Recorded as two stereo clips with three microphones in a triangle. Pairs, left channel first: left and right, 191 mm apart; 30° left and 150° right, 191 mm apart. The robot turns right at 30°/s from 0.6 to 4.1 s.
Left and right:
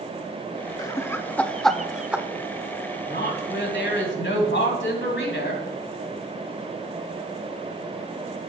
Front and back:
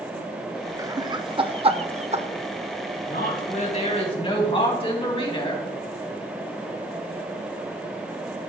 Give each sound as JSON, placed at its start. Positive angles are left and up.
{"t": 0.8, "sound": "laughter", "azimuth_deg": 150, "distance_m": 0.8}
{"t": 3.1, "sound": "a woman speaking", "azimuth_deg": 60, "distance_m": 2.5}